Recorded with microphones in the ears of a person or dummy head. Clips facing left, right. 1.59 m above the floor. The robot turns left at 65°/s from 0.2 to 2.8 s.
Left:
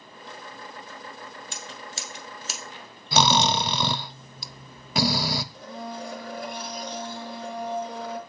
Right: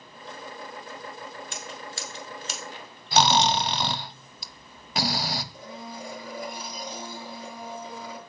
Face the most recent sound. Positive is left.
turn(degrees=-10)  # may be behind; listen again after turning